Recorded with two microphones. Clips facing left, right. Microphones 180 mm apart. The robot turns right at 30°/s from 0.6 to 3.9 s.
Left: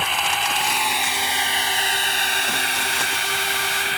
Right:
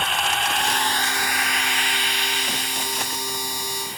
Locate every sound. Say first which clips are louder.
0.0 s a drone: even; 5° left; by 4.0 s 105° left